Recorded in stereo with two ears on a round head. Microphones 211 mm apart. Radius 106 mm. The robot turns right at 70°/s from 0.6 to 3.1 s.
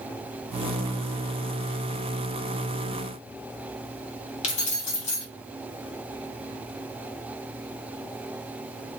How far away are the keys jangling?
About 1.2 m.